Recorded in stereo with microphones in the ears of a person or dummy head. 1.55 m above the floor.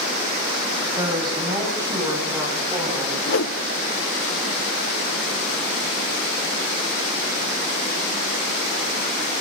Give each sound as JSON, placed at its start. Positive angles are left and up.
{"t": 0.9, "sound": "a woman speaking", "side_deg": -25, "distance_m": 8.0}
{"t": 3.3, "sound": "a whoosh", "side_deg": 70, "distance_m": 1.2}